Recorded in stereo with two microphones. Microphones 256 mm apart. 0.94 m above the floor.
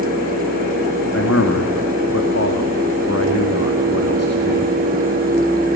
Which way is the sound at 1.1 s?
70° left (ahead or behind).